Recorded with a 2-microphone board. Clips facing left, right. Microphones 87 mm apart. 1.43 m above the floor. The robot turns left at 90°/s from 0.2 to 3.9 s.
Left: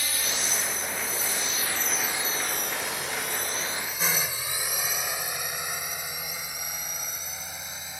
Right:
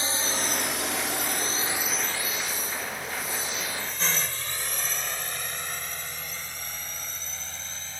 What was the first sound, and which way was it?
A drone, 30° right (ahead or behind).